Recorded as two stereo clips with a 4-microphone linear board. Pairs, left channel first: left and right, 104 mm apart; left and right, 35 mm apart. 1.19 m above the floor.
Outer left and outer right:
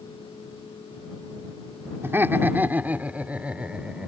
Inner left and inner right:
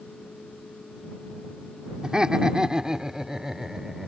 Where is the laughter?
25° right (ahead or behind); by 4.1 s 10° right (ahead or behind).